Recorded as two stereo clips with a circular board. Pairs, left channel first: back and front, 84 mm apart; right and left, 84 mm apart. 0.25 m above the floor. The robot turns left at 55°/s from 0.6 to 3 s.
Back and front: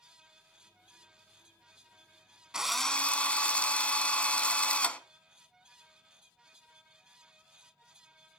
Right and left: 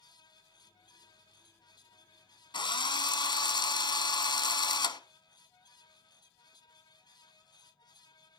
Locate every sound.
2.5 s a drill: 80° right, 0.8 m; by 5.0 s 105° right, 0.8 m